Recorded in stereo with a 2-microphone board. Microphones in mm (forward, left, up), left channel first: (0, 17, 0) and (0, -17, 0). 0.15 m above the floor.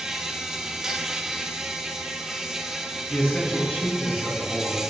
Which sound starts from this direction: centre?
An insect, at 0.0 s.